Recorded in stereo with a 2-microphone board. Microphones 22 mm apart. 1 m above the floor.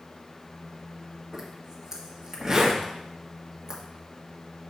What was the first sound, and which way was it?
A zipper, 20° right (ahead or behind).